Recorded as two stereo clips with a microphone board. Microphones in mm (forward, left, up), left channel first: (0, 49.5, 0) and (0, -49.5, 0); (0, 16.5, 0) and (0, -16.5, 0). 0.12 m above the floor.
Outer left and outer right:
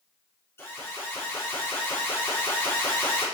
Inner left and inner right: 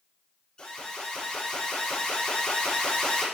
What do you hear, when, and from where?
0.6 s an alarm: 25° left (ahead or behind), 4.5 m